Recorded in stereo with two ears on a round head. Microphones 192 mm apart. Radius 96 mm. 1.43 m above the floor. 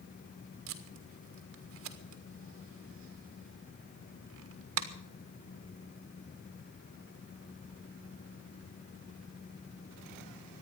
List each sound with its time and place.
0.7 s tape being pulled: 70° right (ahead or behind), 2.5 m